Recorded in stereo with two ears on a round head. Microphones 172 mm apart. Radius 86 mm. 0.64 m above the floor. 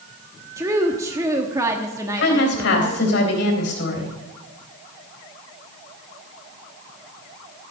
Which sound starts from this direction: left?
A woman speaking, at 2.2 s.